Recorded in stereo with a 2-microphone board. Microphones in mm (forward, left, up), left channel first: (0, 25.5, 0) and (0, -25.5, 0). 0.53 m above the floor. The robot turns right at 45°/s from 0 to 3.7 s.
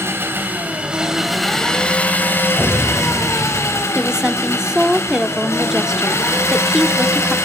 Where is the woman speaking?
10° right (ahead or behind), 1.0 m.